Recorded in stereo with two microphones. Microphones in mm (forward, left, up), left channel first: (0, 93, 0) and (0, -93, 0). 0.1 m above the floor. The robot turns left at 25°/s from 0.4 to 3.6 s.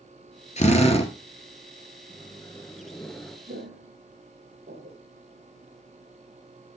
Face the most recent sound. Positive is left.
turn(degrees=-60)  # may be behind; listen again after turning